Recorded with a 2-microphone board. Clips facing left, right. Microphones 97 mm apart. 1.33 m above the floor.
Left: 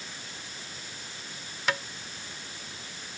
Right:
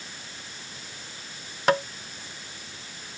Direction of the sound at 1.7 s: 45° right (ahead or behind).